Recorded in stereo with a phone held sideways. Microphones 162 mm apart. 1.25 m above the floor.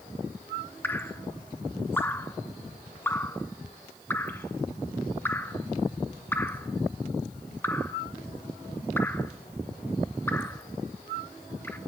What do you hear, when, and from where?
0.8 s dripping: 15° left (ahead or behind), 0.8 m